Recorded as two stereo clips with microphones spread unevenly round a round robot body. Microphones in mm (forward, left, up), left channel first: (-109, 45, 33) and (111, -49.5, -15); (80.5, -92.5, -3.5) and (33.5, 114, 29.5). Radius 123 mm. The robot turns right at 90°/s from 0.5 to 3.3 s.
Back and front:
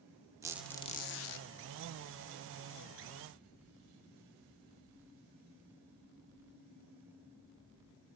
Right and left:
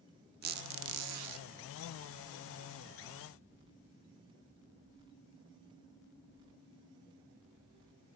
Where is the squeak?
55° left, 0.6 m; by 1.5 s 145° left, 0.6 m.